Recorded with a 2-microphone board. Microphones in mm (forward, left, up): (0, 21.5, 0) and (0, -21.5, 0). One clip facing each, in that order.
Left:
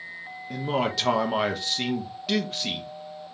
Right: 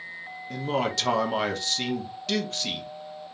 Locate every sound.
0.5 s a man speaking: 10° left (ahead or behind), 0.7 m